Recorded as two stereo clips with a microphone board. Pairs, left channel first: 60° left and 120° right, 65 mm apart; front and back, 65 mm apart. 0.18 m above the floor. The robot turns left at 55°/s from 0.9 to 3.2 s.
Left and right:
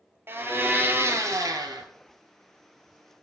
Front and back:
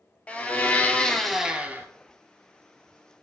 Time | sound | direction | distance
0.3 | a blender | 70° right | 0.5 m